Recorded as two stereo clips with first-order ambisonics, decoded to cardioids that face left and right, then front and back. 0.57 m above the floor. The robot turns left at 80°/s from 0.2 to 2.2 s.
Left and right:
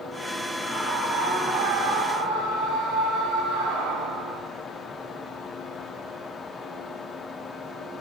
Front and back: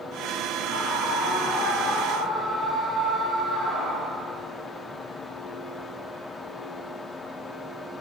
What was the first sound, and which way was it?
A scream, 30° left.